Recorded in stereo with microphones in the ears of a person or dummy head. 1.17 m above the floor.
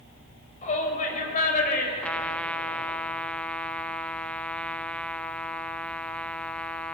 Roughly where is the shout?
Left.